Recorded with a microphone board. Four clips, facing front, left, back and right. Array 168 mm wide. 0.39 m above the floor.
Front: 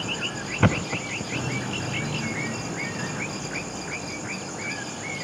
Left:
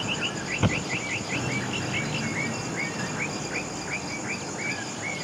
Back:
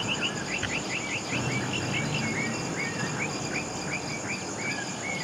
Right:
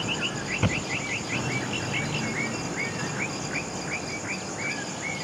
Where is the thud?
10° left.